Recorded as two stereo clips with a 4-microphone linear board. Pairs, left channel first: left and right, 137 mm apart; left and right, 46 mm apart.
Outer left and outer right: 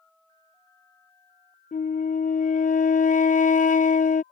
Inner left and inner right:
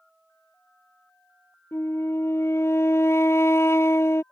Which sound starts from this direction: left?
A flute, at 1.7 s.